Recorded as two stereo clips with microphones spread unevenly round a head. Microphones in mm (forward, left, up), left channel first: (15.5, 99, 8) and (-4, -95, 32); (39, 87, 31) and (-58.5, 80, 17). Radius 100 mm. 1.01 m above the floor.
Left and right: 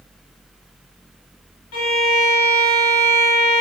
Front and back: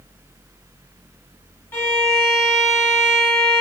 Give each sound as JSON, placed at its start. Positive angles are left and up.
{"t": 1.7, "sound": "a violin", "azimuth_deg": 65, "distance_m": 0.6}